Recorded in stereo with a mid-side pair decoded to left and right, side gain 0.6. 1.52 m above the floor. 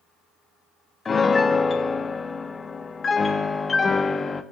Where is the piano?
30° left, 1.4 m.